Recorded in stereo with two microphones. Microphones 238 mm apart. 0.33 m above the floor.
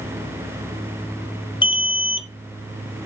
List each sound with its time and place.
1.6 s an alarm: 20° left (ahead or behind), 0.7 m